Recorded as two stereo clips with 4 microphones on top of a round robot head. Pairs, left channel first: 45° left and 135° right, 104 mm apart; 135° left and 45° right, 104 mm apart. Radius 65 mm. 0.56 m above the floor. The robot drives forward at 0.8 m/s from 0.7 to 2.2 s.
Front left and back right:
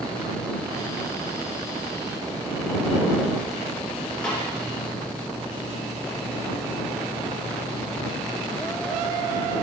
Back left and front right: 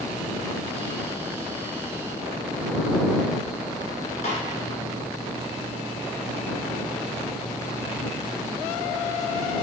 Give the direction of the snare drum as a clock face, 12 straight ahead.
8 o'clock.